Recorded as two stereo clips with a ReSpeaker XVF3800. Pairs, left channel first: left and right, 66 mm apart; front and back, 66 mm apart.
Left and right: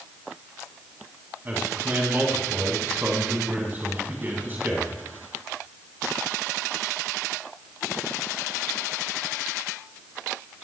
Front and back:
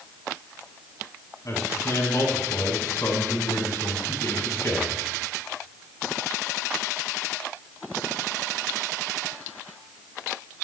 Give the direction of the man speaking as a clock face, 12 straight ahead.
1 o'clock.